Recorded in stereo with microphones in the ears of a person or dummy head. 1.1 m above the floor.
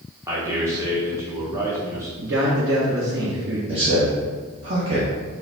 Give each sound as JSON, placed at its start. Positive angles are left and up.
{"t": 0.3, "sound": "a man speaking", "side_deg": -10, "distance_m": 1.2}
{"t": 2.2, "sound": "a man speaking", "side_deg": -55, "distance_m": 1.1}
{"t": 3.7, "sound": "a man speaking", "side_deg": -25, "distance_m": 1.1}